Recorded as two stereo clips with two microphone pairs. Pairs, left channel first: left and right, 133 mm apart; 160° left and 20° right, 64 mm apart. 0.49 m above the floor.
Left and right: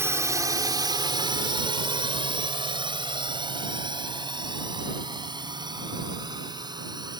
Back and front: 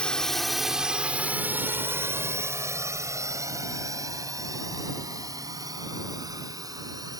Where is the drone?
140° right; by 7.2 s 35° right.